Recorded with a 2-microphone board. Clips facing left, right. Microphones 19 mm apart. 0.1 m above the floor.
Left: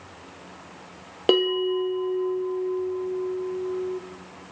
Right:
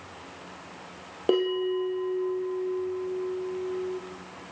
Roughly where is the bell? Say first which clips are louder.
Left 4 dB; left.